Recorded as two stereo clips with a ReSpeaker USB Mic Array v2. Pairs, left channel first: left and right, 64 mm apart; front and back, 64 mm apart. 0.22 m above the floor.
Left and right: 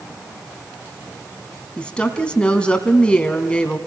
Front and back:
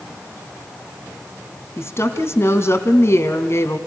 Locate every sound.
1.8 s a woman speaking: 20° left, 2 m